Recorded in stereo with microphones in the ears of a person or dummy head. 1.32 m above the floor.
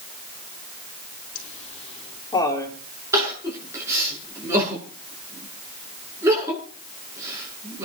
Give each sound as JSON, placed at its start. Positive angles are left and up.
{"t": 1.4, "sound": "laughter", "side_deg": 45, "distance_m": 4.0}
{"t": 3.1, "sound": "crying", "side_deg": -15, "distance_m": 8.5}